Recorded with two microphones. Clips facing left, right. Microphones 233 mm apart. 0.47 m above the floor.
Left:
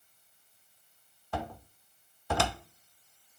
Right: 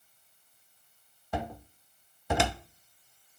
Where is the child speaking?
I don't hear a child speaking.